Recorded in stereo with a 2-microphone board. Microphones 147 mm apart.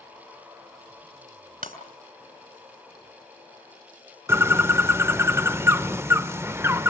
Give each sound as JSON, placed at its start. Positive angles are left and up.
{"t": 1.6, "sound": "breaking glass", "side_deg": -80, "distance_m": 3.0}
{"t": 4.3, "sound": "a bird", "side_deg": -15, "distance_m": 0.5}